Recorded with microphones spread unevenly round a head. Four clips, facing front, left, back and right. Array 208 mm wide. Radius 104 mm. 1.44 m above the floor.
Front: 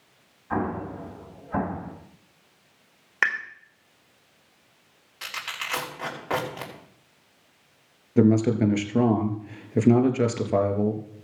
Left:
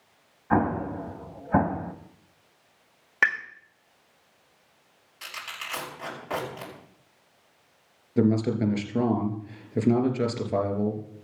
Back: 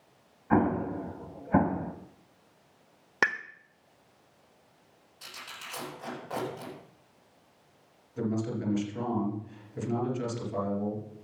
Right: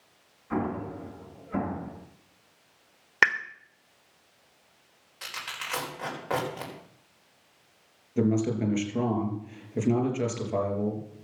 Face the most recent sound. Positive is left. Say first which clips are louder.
# left 2 dB, front 12 dB
turn(degrees=10)